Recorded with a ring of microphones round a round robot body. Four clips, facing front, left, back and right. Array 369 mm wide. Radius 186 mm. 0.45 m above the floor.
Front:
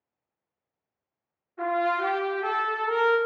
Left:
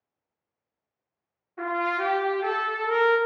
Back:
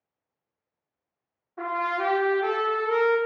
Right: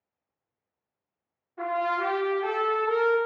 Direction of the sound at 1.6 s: 160° left.